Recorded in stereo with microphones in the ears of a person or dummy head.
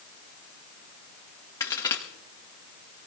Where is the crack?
20° left (ahead or behind), 1.3 m.